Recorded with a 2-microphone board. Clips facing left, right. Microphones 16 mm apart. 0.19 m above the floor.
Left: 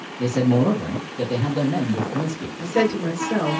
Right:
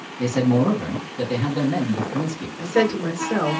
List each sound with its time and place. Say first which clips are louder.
0.2 s a man speaking: even; 25° right (ahead or behind), 1.3 m
2.6 s a woman speaking: right 1 dB; 30° right (ahead or behind), 1.7 m